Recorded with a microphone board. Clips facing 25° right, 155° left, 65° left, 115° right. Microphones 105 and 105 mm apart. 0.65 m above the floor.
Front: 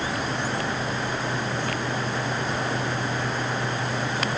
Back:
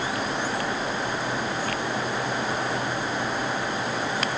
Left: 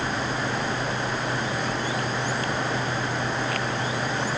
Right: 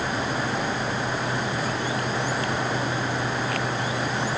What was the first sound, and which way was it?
Only background noise.